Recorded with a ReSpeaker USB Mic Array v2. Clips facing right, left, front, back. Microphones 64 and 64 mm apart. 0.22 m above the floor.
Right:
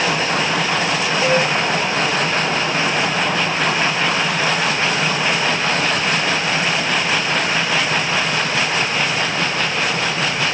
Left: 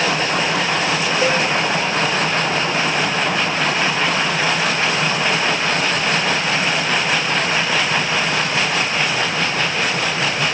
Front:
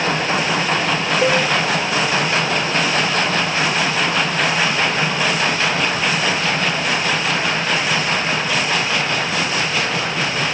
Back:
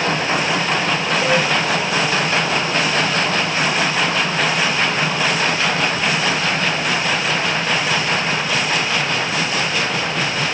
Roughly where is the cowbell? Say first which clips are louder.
Right 2 dB, front 1 dB; ahead left.